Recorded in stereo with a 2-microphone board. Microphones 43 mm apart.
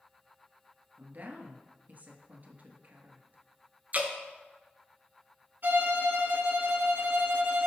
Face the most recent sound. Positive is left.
turn(degrees=-55)  # may be behind; listen again after turning